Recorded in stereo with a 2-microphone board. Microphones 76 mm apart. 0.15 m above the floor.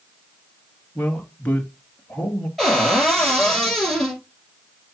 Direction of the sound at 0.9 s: 20° left (ahead or behind).